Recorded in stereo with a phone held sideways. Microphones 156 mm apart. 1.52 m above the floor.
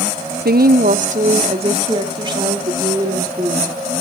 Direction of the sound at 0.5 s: 75° right (ahead or behind).